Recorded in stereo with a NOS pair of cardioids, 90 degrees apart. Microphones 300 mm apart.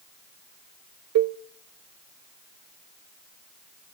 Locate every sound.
1.1 s a cowbell: 60° right, 0.6 m